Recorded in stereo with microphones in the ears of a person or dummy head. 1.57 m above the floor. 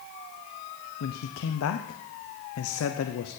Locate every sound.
1.0 s a man speaking: 85° left, 0.7 m